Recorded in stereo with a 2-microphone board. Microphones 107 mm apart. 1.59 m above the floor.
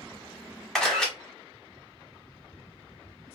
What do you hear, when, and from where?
0.8 s a camera shutter: 5° left (ahead or behind), 1.2 m